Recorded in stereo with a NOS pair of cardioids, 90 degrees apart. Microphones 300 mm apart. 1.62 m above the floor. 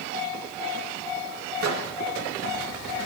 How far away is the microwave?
About 2.5 m.